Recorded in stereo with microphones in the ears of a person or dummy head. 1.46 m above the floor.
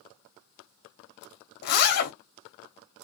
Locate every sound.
1.6 s a zipper: 50° left (ahead or behind), 0.5 m